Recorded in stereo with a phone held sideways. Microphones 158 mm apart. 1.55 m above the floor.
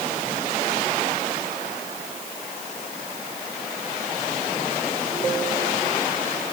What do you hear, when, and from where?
Only background noise.